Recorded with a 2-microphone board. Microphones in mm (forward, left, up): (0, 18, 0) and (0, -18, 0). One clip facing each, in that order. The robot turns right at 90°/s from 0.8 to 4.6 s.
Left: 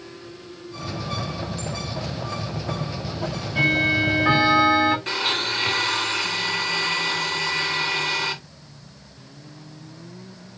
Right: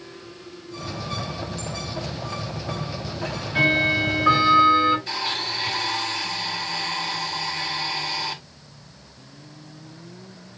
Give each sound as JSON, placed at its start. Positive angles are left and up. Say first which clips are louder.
{"t": 3.2, "sound": "ticking", "louder": "right 1 dB", "azimuth_deg": -65, "distance_m": 4.5}
{"t": 5.1, "sound": "a blender", "louder": "left 3 dB", "side_deg": 65, "distance_m": 4.0}